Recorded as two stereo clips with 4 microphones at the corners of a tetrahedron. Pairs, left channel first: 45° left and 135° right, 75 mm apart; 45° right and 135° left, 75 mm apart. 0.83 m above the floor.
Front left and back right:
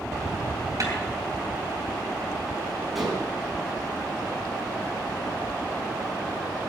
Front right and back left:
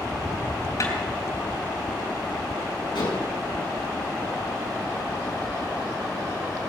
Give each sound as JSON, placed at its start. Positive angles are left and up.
{"t": 0.8, "sound": "a snare drum", "azimuth_deg": -90, "distance_m": 4.5}
{"t": 3.0, "sound": "dishes clattering", "azimuth_deg": -45, "distance_m": 5.0}